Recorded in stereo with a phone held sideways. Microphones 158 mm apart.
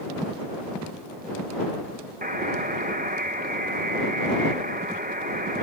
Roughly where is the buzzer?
Right.